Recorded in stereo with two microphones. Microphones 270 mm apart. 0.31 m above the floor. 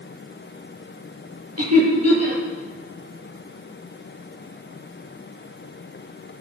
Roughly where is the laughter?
Right.